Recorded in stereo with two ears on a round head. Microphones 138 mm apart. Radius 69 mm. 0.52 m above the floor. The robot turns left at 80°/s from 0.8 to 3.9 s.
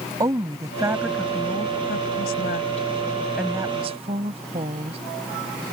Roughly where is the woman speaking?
Behind right.